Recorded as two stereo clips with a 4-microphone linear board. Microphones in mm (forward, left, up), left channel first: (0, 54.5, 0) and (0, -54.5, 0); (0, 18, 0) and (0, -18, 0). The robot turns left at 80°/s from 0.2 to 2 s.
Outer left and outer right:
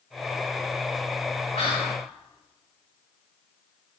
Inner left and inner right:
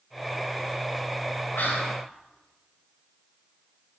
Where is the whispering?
80° left, 4.5 m; by 2.0 s 45° left, 4.5 m.